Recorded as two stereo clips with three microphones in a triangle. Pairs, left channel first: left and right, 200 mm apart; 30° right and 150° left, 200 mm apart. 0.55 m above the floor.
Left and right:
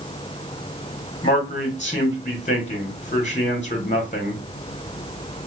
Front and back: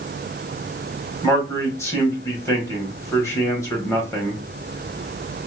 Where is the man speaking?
40° left, 1.5 m.